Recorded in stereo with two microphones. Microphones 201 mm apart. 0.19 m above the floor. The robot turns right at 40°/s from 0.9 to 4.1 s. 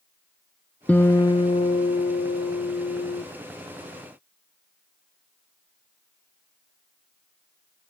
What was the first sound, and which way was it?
A guitar, 10° left.